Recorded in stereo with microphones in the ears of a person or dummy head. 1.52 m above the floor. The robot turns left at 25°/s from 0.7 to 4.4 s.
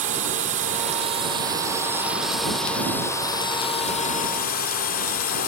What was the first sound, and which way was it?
A drone, 135° right.